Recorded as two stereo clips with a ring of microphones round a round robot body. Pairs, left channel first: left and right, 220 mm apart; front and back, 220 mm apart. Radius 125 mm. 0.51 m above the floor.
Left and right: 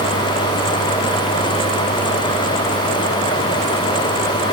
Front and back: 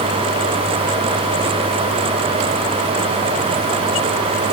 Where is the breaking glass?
I don't hear breaking glass.